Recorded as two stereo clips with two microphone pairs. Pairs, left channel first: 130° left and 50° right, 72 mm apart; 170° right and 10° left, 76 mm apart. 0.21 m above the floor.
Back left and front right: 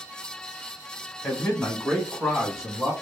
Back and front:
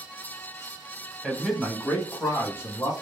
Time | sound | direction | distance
1.2 | a man speaking | 90° left | 1.0 m